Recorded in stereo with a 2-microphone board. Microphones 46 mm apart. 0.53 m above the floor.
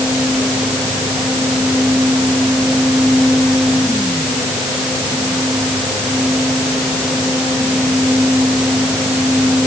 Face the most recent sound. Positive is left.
No sound to turn to.